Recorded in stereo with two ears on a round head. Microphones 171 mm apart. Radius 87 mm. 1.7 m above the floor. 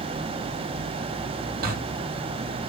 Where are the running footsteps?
50° right (ahead or behind), 2.5 m.